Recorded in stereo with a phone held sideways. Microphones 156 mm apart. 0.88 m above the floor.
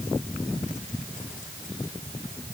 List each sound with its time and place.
Only background noise.